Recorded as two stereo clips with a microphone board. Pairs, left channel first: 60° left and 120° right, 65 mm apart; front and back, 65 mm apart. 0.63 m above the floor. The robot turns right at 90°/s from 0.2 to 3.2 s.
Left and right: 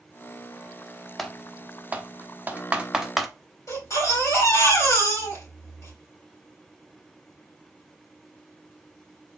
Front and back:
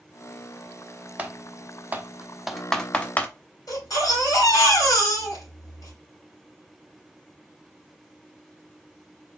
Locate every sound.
1.2 s typing on a keyboard: 145° left, 0.7 m; by 3.3 s 30° right, 0.7 m
3.7 s a baby crying: 20° left, 3 m